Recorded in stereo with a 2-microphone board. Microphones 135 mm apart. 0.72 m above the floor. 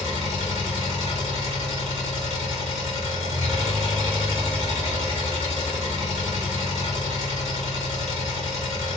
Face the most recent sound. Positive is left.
turn(degrees=-50)  # may be behind; listen again after turning